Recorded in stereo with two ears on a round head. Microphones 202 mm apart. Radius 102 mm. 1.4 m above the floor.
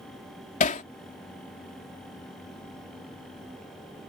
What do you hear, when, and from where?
0.6 s hammering: 35° left (ahead or behind)